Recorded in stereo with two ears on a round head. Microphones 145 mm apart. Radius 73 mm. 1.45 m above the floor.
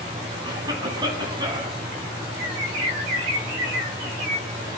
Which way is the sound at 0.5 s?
25° right (ahead or behind).